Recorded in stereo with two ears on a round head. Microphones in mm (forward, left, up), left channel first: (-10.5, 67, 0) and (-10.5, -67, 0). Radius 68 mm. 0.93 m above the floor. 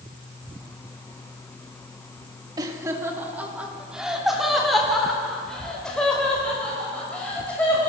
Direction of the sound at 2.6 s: 25° right (ahead or behind).